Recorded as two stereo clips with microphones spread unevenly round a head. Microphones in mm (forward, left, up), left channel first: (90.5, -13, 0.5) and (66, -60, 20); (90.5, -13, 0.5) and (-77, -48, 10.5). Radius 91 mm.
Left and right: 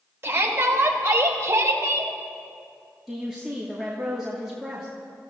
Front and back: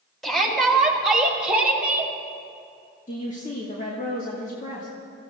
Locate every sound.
0.2 s a shout: 75° right, 4 m; by 2.1 s 90° right, 2.5 m
3.1 s a woman speaking: 35° right, 2 m